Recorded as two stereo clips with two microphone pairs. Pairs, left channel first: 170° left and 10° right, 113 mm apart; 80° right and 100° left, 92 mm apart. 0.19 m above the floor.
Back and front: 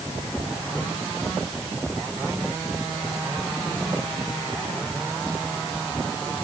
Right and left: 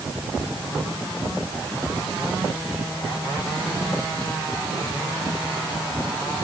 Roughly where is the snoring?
No snoring in this recording.